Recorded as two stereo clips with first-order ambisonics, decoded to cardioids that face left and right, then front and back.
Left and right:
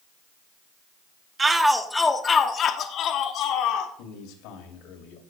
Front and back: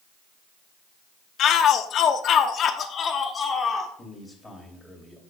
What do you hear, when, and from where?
1.4 s a shout: 25° right, 0.9 m; by 3.9 s 65° left, 1.5 m
4.0 s a man speaking: 90° left, 2.5 m